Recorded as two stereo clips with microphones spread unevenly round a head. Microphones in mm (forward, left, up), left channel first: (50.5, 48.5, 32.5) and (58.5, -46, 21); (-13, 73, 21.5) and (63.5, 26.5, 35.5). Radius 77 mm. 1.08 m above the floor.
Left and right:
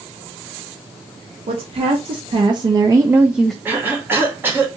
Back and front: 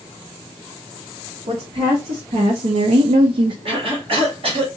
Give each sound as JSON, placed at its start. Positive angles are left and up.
{"t": 1.5, "sound": "a woman speaking", "azimuth_deg": -70, "distance_m": 1.1}
{"t": 3.6, "sound": "a cough", "azimuth_deg": -20, "distance_m": 1.8}